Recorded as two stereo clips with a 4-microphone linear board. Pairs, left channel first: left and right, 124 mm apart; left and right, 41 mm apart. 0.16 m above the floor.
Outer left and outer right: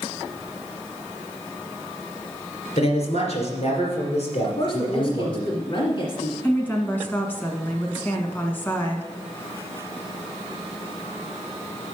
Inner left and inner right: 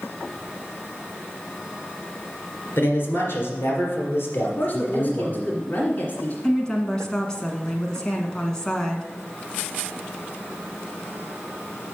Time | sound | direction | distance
2.8 | a man speaking | 55° left (ahead or behind) | 2.5 m
4.4 | a woman speaking | 40° left (ahead or behind) | 1.8 m
6.4 | a woman speaking | 15° left (ahead or behind) | 1.5 m